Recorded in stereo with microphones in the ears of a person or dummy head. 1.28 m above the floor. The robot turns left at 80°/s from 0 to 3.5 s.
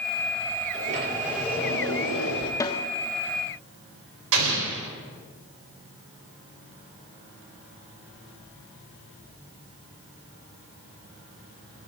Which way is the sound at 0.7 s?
130° right.